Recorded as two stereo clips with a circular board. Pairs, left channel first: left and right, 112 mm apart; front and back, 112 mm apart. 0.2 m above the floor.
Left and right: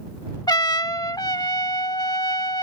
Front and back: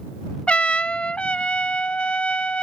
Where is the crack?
I don't hear a crack.